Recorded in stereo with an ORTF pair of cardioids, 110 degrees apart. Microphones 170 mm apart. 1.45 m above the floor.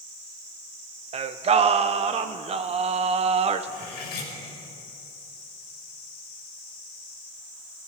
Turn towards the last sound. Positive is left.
turn(degrees=70)